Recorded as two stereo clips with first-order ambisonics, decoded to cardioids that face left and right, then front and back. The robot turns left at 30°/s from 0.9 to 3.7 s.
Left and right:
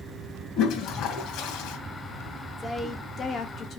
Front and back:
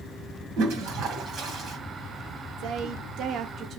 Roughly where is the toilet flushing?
Behind left.